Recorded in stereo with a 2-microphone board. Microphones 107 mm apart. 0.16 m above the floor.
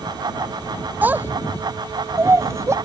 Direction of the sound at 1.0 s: 15° right (ahead or behind).